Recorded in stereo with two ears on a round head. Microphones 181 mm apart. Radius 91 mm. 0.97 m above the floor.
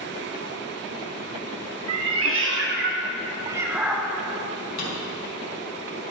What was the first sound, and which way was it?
A cat meowing, 80° right.